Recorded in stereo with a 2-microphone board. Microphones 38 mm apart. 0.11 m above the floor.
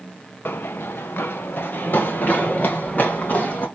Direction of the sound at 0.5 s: 65° left (ahead or behind).